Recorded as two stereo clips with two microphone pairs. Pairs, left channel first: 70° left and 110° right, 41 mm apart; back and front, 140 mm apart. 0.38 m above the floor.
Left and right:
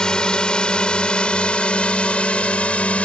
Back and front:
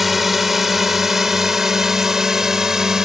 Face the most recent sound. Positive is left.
turn(degrees=80)